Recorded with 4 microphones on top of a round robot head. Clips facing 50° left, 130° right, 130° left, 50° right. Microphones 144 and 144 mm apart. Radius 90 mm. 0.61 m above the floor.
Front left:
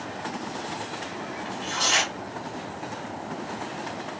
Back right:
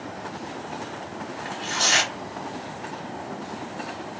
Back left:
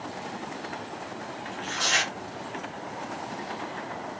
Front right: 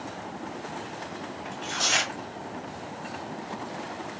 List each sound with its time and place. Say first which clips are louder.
1.4 s tearing paper: back right 2 dB, even; 95° right, 2 m